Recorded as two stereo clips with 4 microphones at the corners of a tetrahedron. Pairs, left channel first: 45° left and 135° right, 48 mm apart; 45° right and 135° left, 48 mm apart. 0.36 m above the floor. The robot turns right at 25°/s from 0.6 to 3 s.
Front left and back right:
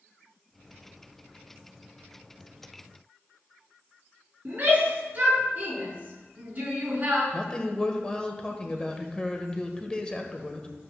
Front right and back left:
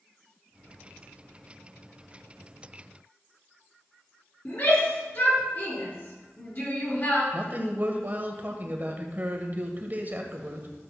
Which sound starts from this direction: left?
A man speaking, at 7.3 s.